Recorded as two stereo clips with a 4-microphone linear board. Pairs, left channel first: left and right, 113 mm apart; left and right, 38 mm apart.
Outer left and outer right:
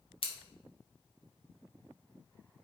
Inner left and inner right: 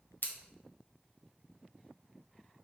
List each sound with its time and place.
0.2 s scissors: 60° left (ahead or behind), 0.9 m